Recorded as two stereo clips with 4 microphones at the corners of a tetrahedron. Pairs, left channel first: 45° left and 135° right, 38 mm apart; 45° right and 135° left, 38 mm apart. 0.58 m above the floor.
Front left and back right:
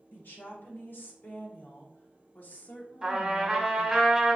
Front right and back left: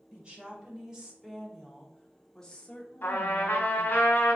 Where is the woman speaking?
75° left, 1.8 m; by 4.0 s 30° right, 1.1 m.